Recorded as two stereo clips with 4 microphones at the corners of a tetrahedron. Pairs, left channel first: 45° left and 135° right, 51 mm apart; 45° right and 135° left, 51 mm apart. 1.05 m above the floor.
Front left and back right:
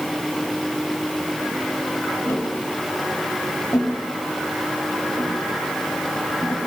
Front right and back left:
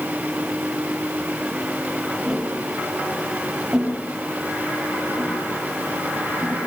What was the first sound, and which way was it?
Tapping, 55° left.